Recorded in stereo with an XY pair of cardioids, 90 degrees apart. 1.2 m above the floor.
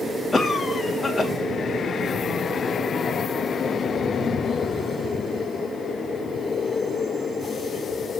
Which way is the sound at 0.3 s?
20° left.